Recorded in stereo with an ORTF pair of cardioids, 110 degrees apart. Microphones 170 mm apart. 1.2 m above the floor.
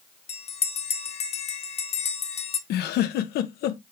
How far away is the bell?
About 0.6 m.